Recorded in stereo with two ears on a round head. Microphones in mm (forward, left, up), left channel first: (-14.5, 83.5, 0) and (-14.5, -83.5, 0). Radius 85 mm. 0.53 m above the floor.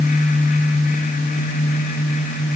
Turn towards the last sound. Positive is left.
No sound to turn to.